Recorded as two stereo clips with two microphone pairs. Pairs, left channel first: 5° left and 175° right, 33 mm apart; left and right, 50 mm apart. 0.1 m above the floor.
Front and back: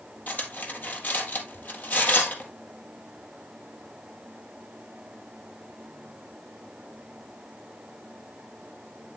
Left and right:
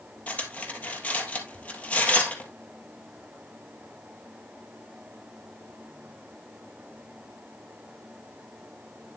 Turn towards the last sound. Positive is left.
turn(degrees=35)